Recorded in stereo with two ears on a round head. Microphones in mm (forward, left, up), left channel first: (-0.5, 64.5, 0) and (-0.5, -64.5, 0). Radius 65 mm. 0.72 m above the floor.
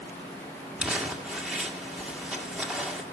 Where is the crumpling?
5° right (ahead or behind), 2.0 m.